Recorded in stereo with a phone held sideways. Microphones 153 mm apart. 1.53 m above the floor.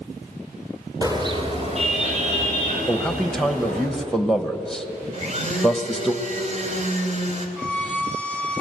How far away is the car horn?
About 3 m.